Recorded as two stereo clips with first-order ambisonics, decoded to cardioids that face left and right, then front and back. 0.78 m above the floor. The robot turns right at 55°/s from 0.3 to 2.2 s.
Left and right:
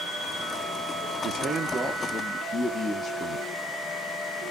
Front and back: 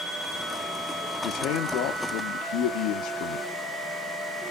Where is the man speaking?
40° right, 0.8 m; by 3.5 s 15° left, 0.8 m.